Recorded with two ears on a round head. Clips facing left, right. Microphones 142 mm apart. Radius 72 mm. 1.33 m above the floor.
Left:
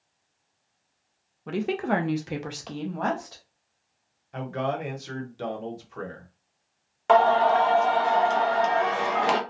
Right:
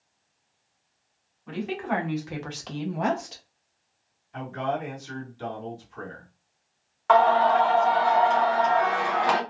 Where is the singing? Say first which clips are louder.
Even; 25° left (ahead or behind), 0.7 m.